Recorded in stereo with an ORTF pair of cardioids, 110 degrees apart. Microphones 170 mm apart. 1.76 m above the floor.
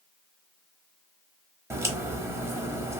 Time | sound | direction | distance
1.7 | a crack | 15° right | 0.9 m